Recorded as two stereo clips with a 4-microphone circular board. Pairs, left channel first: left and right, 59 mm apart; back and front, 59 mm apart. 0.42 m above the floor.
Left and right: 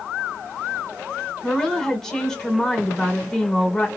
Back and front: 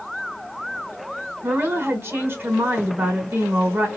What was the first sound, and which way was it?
A woman speaking, 15° left.